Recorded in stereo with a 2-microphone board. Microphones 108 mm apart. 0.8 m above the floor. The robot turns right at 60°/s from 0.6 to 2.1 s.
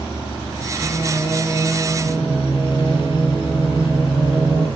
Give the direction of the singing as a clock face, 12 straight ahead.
9 o'clock.